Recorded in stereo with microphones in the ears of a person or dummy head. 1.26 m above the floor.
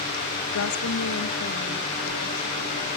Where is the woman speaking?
70° left (ahead or behind), 0.8 m; by 2.9 s 75° left (ahead or behind), 3.5 m.